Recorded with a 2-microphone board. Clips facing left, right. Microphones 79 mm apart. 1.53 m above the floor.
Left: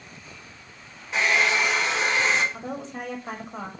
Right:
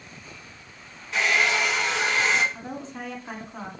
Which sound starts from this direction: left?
A woman speaking, at 2.5 s.